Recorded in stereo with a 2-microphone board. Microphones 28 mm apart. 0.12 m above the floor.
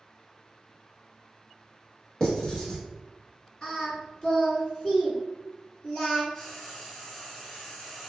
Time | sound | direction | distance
2.2 | writing | 25° left (ahead or behind) | 1.4 m
3.6 | singing | 35° left (ahead or behind) | 1.2 m
6.3 | frying | 35° left (ahead or behind) | 1.9 m